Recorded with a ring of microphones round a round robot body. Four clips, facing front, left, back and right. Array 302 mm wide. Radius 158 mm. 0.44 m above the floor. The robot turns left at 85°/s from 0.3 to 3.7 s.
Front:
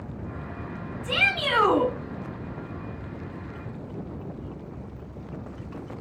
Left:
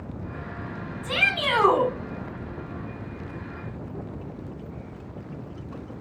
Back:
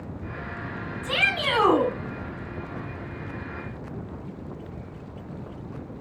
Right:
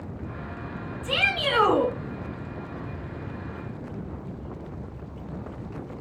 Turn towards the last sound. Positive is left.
turn(degrees=-50)